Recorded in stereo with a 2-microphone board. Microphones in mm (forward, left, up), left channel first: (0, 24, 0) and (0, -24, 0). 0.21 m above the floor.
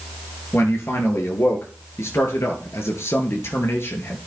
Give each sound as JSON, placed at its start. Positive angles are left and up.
{"t": 0.5, "sound": "a man speaking", "side_deg": 65, "distance_m": 3.0}